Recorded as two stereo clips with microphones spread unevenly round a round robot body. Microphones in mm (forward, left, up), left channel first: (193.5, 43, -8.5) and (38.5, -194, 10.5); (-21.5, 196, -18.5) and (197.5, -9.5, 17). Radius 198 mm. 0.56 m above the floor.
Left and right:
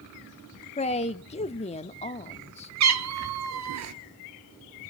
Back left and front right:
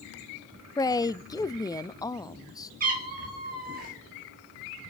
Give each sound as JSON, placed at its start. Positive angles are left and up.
{"t": 0.8, "sound": "a man speaking", "azimuth_deg": 85, "distance_m": 0.6}
{"t": 2.8, "sound": "a cat meowing", "azimuth_deg": -105, "distance_m": 1.1}